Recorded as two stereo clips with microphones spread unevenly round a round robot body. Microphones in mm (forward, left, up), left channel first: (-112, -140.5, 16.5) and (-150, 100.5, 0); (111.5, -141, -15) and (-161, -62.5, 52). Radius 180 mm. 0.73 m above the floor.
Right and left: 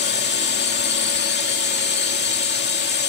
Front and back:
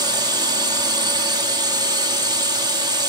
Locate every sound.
0.0 s a drone: 110° right